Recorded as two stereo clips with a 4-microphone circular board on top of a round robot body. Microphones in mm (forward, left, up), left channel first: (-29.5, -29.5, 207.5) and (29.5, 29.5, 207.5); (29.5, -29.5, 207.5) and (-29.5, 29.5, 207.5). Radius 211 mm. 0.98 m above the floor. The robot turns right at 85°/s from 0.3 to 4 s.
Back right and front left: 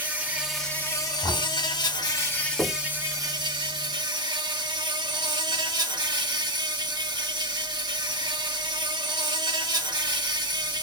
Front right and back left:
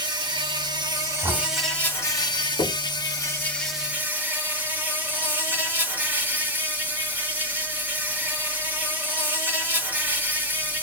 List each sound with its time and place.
0.0 s an insect: 115° left, 2.5 m; by 10.8 s 70° left, 2.5 m
1.2 s knocking: 175° left, 2.5 m; by 1.5 s 160° right, 2.5 m
2.6 s knocking: 50° right, 0.6 m; by 2.8 s 30° right, 0.6 m